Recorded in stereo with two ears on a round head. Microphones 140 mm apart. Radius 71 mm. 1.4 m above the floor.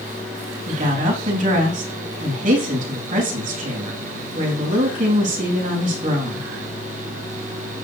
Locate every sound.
0.7 s a woman speaking: 55° right (ahead or behind), 3 m